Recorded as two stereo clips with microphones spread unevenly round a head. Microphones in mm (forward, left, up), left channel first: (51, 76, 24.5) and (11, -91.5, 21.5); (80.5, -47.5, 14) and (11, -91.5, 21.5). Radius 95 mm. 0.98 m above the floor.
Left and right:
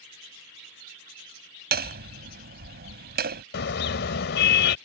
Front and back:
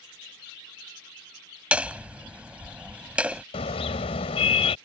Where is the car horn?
55° left.